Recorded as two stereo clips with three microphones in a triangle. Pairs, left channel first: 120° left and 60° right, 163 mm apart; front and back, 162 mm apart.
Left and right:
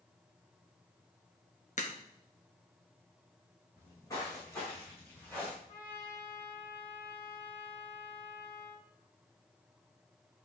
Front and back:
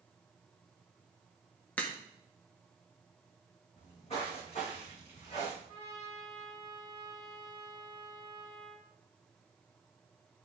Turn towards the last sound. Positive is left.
turn(degrees=60)